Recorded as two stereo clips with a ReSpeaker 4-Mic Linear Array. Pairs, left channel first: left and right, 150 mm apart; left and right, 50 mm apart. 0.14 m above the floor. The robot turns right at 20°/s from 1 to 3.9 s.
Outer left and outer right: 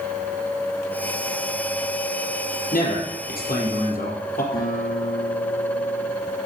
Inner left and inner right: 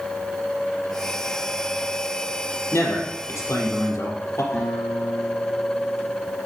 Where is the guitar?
70° left (ahead or behind), 6 m.